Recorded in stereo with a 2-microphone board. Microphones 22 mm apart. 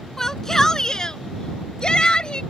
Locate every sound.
0.2 s a shout: 20° left (ahead or behind); by 2.4 s 40° left (ahead or behind)